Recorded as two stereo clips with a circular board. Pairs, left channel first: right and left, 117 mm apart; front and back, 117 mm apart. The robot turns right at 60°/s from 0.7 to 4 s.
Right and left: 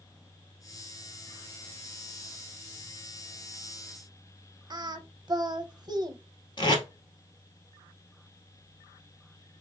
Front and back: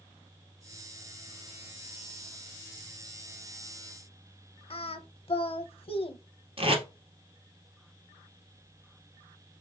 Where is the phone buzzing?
I don't hear a phone buzzing.